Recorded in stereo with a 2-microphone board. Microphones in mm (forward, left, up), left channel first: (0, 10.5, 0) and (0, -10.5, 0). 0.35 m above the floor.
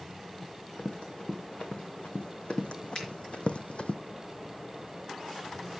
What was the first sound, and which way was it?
Running footsteps, 50° left (ahead or behind).